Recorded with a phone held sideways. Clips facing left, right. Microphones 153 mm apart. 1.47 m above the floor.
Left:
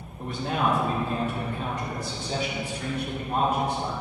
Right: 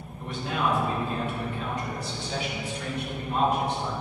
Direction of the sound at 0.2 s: 40° left (ahead or behind).